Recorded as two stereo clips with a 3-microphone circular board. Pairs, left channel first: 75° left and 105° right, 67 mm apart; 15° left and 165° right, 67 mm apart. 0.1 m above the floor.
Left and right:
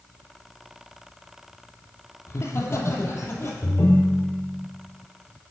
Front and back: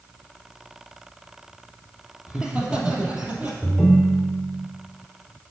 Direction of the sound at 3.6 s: 100° left.